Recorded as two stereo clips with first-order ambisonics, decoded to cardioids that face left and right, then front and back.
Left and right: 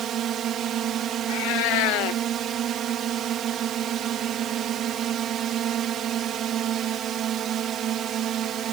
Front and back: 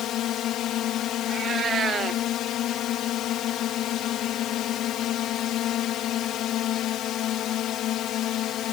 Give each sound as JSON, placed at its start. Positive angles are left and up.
{"t": 0.0, "sound": "a drone", "azimuth_deg": -40}
{"t": 1.3, "sound": "a cat meowing", "azimuth_deg": 115}